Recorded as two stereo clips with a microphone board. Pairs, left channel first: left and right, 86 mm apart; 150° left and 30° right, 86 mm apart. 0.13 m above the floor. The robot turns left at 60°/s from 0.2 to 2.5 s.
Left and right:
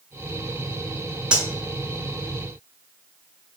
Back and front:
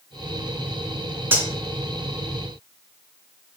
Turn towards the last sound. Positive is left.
turn(degrees=-95)